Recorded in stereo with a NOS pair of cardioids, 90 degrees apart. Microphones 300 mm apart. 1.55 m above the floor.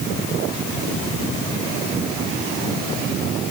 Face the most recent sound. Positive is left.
No sound to turn to.